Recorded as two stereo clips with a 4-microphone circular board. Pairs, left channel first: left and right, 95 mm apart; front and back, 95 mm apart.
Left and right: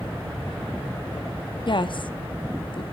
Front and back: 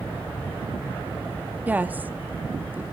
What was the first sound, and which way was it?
A woman speaking, 110° left.